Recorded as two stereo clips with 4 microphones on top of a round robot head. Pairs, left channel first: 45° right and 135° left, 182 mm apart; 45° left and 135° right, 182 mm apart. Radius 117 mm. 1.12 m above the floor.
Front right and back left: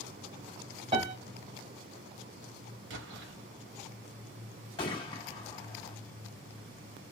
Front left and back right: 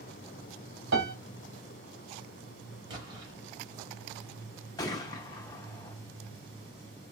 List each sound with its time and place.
0.9 s a piano: 160° right, 1.8 m
2.9 s an explosion: 155° left, 2.5 m
4.8 s a gunshot: 5° right, 0.7 m